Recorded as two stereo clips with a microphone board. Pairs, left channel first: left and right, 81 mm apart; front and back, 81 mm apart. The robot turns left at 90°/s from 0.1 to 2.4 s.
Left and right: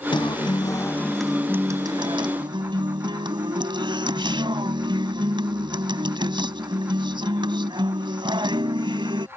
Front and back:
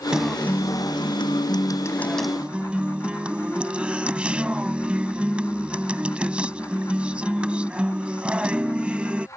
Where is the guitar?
100° left; by 9.3 s 105° right.